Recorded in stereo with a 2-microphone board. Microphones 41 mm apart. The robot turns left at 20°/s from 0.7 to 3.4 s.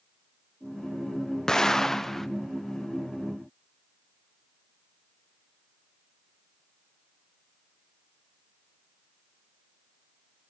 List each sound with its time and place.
1.5 s an explosion: 15° left (ahead or behind), 0.6 m; by 2.3 s 10° left (ahead or behind), 0.6 m